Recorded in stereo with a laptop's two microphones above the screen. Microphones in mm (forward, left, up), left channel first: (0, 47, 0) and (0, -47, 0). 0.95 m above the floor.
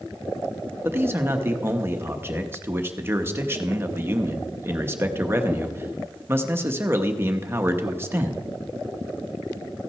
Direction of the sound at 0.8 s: 25° right (ahead or behind).